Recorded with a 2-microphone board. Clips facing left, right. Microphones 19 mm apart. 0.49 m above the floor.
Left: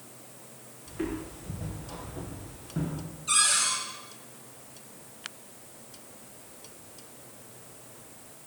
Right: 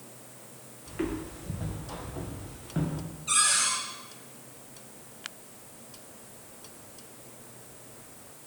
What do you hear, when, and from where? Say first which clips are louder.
0.9 s footsteps: right 1 dB; 70° right (ahead or behind), 5 m; by 3.0 s 80° right, 4 m
3.3 s a cupboard door: even; 10° right (ahead or behind), 7.5 m